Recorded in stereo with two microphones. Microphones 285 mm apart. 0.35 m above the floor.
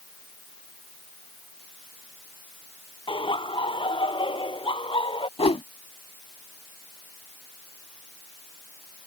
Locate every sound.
3.1 s laughter: 15° left (ahead or behind)
5.4 s a whoosh: 20° left (ahead or behind)